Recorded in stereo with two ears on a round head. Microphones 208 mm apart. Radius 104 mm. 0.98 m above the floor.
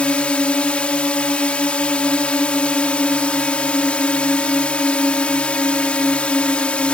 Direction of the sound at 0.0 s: 5° left (ahead or behind).